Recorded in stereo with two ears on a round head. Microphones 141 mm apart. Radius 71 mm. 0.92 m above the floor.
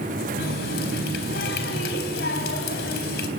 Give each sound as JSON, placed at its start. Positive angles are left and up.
{"t": 0.4, "sound": "a running tap", "side_deg": 75, "distance_m": 3.5}